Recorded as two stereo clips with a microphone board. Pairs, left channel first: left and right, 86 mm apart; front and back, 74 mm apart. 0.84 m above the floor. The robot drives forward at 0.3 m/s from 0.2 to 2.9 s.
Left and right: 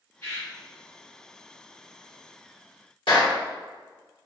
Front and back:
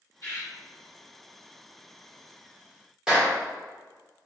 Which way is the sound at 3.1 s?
95° left.